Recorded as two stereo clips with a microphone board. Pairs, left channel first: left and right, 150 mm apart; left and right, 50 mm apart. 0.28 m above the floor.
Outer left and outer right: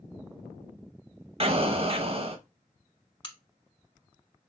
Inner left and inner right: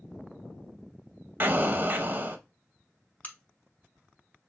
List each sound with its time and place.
1.4 s an explosion: 40° right (ahead or behind), 0.5 m
3.2 s a crack: 35° left (ahead or behind), 0.8 m